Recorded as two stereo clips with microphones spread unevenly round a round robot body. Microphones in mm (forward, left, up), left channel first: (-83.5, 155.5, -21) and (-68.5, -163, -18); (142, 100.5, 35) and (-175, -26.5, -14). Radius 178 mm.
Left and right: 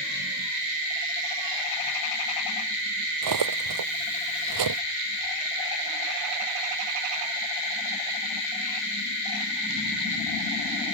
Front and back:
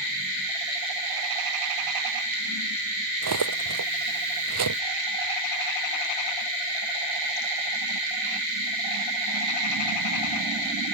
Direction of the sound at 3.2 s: 105° right.